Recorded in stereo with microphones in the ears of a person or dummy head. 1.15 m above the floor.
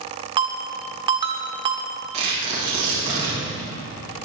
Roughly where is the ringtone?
Right.